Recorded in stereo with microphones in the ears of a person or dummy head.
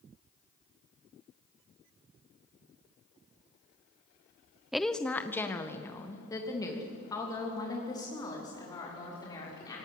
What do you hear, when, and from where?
4.7 s a woman speaking: 5° right (ahead or behind), 0.7 m; by 9.8 s 25° left (ahead or behind), 6 m